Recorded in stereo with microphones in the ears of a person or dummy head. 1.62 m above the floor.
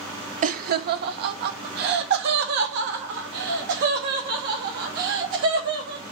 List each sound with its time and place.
0.4 s laughter: 45° right (ahead or behind), 0.6 m; by 6.0 s 70° right (ahead or behind), 3.5 m